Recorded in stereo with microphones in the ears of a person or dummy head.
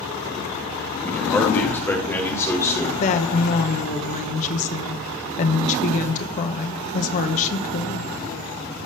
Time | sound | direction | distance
1.0 | a man speaking | 15° left (ahead or behind) | 2 m
3.0 | a woman speaking | 40° left (ahead or behind) | 1.0 m